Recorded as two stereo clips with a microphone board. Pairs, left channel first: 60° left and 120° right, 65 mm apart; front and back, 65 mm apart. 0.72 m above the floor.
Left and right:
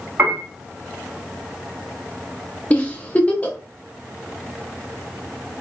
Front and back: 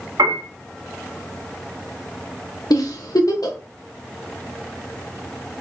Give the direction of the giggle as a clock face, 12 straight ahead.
12 o'clock.